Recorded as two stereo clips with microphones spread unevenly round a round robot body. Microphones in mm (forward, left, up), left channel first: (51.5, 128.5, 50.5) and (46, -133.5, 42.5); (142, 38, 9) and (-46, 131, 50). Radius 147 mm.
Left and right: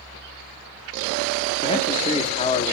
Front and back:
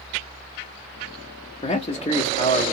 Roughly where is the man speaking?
Ahead left.